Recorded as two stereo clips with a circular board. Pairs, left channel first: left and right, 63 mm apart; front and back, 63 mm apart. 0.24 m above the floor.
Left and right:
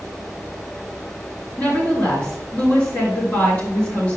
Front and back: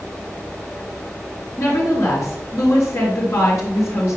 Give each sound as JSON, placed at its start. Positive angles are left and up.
{"t": 1.6, "sound": "a woman speaking", "azimuth_deg": 30, "distance_m": 4.0}